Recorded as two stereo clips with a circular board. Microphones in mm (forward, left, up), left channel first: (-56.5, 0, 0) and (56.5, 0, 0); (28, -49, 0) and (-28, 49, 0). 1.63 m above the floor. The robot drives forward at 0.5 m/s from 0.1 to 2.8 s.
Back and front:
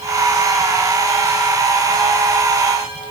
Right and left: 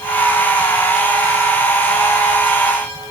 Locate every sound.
Only background noise.